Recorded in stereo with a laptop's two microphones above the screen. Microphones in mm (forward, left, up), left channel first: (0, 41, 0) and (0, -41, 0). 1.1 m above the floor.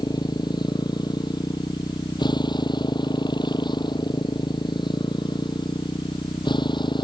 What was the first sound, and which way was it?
A motorcycle, 65° left (ahead or behind).